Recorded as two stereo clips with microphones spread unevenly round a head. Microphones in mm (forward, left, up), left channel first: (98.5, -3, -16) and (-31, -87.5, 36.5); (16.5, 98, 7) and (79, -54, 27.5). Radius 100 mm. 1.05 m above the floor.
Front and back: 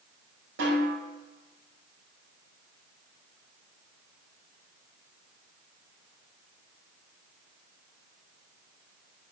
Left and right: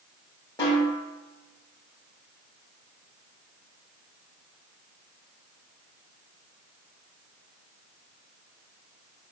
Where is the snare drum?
175° right, 6.5 m.